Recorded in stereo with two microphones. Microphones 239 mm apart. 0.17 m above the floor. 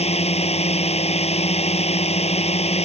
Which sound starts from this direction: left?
A drone, at 0.0 s.